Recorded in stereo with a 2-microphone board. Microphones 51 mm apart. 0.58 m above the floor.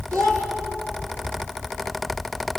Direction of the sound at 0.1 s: 75° right (ahead or behind).